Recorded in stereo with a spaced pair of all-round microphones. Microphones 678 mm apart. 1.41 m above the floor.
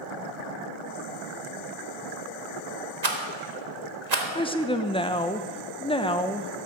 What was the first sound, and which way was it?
A rattle, 70° right (ahead or behind).